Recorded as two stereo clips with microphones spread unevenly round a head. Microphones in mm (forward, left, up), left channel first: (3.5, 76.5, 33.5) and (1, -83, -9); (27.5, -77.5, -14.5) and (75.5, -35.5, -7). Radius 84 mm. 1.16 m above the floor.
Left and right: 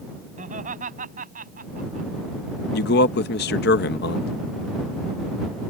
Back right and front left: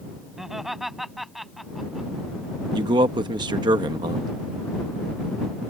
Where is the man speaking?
60° left.